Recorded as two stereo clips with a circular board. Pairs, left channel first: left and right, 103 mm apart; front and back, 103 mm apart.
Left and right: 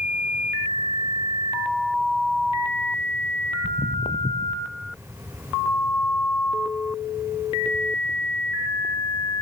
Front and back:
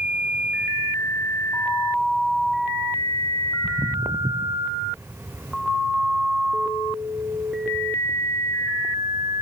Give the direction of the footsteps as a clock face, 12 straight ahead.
8 o'clock.